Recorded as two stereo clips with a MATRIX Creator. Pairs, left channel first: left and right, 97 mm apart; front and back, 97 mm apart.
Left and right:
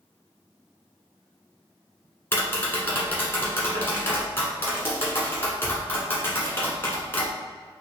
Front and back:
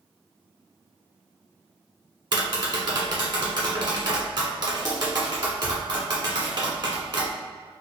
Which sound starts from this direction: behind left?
Tapping, at 2.3 s.